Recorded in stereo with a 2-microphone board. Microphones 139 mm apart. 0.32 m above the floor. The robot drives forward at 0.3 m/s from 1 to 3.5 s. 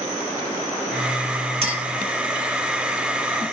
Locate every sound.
1.6 s a clink: 45° right (ahead or behind), 2 m